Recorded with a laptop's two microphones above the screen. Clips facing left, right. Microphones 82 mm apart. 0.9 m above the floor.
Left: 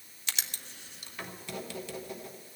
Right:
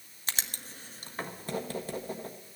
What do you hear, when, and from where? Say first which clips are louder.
0.3 s writing: right 2 dB; 40° right (ahead or behind), 1.1 m